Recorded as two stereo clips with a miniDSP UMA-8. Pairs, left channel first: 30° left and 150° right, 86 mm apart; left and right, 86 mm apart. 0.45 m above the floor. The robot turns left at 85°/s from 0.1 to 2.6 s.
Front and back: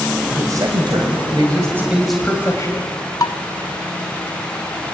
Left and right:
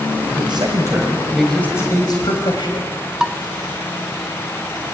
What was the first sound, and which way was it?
A man speaking, 85° right.